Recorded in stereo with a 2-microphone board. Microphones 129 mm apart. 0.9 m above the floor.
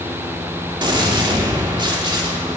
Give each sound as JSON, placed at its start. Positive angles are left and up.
{"t": 0.8, "sound": "a gunshot", "side_deg": -35, "distance_m": 1.9}